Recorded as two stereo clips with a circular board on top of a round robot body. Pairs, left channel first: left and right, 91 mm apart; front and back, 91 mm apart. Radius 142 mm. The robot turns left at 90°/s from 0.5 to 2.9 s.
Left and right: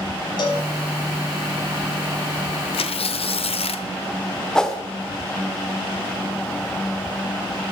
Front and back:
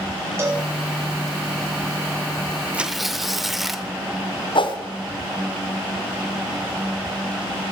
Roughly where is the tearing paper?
Left.